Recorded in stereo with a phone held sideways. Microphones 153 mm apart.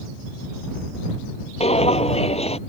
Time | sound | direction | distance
1.6 | footsteps | 45° left (ahead or behind) | ?